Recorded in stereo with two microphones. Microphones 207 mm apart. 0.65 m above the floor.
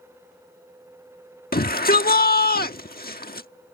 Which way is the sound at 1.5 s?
45° left (ahead or behind).